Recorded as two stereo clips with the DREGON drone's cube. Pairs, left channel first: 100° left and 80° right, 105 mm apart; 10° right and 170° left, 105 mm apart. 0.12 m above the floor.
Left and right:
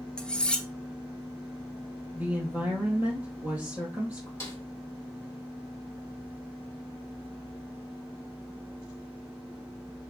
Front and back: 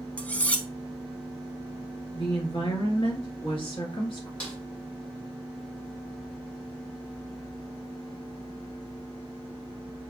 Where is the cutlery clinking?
40° left, 0.6 m.